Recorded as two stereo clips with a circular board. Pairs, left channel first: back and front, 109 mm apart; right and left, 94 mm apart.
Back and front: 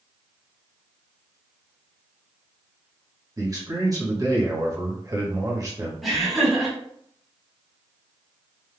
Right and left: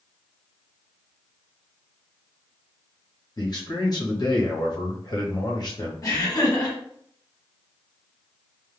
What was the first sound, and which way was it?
A man speaking, 50° right.